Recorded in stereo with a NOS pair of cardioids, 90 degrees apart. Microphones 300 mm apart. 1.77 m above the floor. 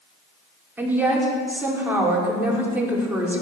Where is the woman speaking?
5° right, 5 m.